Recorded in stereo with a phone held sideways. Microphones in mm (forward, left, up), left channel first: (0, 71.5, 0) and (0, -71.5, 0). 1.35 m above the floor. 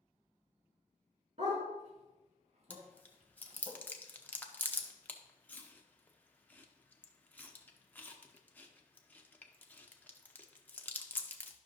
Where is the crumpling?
No crumpling in this recording.